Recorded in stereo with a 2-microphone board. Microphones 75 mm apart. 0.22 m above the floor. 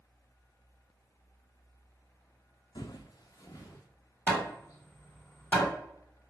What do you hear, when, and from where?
2.8 s footsteps: 75° left (ahead or behind), 0.6 m; by 3.9 s 40° left (ahead or behind), 1.6 m
4.3 s hammering: 25° left (ahead or behind), 1.9 m